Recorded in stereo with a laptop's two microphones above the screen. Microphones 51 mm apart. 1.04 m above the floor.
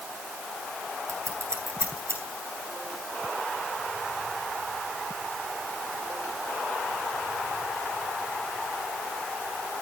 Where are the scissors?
60° right (ahead or behind), 9.5 m.